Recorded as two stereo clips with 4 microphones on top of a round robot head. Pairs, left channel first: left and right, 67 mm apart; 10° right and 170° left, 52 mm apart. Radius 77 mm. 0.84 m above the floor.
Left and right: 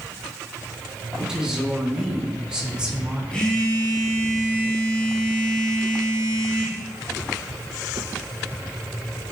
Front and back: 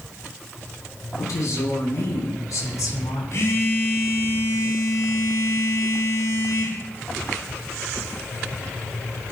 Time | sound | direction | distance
1.2 | a woman speaking | 10° right | 7.5 m
3.3 | a phone buzzing | 15° left | 7.5 m